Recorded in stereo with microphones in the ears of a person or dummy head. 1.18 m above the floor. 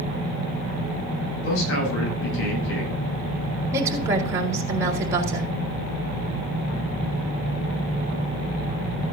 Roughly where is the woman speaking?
Centre.